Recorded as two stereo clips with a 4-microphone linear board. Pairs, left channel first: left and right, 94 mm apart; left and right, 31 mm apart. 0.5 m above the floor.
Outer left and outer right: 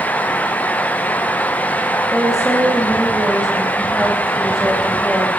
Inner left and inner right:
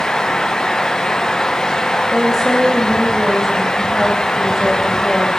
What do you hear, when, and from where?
2.1 s a woman speaking: 5° right (ahead or behind), 3.5 m